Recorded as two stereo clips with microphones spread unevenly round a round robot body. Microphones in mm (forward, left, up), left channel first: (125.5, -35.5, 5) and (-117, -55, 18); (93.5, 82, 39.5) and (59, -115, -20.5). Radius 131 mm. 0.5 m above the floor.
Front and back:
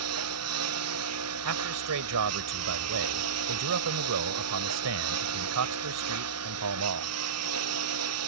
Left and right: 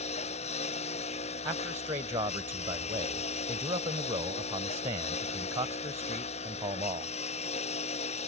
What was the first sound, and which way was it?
A lawn mower, 145° left.